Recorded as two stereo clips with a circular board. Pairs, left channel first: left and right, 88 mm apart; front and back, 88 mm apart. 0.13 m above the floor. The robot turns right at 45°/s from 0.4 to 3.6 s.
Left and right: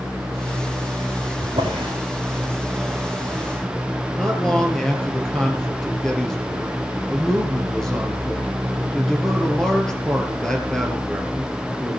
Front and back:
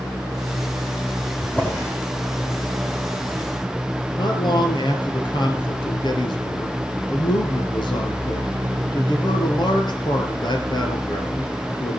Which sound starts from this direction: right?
A drawer, at 1.4 s.